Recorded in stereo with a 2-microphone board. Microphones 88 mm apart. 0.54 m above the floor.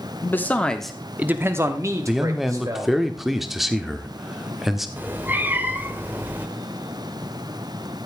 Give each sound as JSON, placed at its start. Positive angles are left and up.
{"t": 0.2, "sound": "a man speaking", "side_deg": 25, "distance_m": 1.1}
{"t": 2.1, "sound": "a man speaking", "side_deg": -5, "distance_m": 1.2}
{"t": 5.0, "sound": "a cat meowing", "side_deg": -20, "distance_m": 1.0}